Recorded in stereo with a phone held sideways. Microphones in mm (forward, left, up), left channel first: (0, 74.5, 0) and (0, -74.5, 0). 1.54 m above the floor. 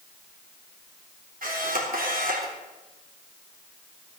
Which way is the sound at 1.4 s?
75° right (ahead or behind).